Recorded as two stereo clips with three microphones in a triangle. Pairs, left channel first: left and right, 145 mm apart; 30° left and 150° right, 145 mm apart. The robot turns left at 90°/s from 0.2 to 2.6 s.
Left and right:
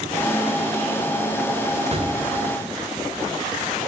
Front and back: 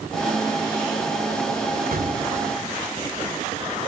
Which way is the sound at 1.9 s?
135° right.